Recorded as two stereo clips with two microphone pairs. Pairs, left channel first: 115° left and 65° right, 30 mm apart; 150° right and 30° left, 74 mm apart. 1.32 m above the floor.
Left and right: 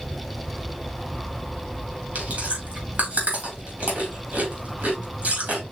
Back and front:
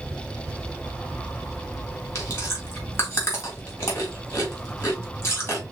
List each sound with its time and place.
2.1 s chewing: 95° right, 2.5 m